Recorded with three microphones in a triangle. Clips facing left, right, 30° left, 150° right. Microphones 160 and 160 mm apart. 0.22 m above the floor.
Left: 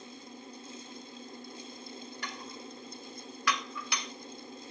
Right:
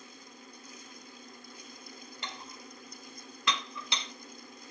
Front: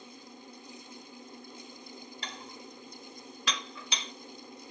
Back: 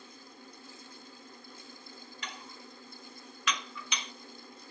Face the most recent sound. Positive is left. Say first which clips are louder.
# left 3 dB, even
turn(degrees=-25)